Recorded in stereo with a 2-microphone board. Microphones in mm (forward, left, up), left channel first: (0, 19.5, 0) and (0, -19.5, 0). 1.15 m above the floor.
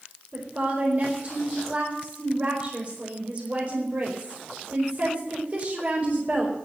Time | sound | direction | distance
0.3 | a woman speaking | 40° right (ahead or behind) | 5 m